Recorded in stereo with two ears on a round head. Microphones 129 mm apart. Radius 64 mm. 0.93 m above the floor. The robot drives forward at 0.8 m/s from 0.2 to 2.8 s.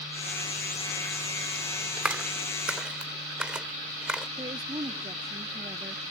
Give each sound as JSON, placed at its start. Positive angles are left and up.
{"t": 2.0, "sound": "a clap", "side_deg": -10}
{"t": 4.4, "sound": "a woman speaking", "side_deg": -30}